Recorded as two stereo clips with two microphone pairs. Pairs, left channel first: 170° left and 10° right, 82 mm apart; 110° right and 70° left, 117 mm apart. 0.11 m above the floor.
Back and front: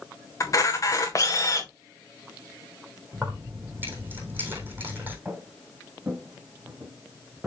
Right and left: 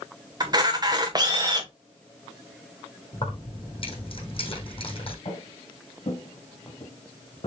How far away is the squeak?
No squeak in this recording.